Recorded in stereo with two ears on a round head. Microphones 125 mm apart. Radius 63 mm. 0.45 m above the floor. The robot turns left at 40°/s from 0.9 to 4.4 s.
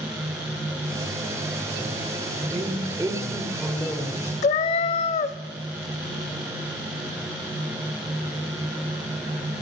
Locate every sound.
2.5 s a woman speaking: 140° right, 1.2 m; by 4.3 s 150° left, 1.2 m
4.4 s a cat meowing: 50° left (ahead or behind), 0.6 m